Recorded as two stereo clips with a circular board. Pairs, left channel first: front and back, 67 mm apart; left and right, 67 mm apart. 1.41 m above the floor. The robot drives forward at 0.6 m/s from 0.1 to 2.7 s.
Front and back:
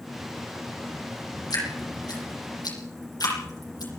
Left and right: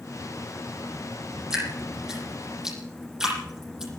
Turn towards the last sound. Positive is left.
turn(degrees=-10)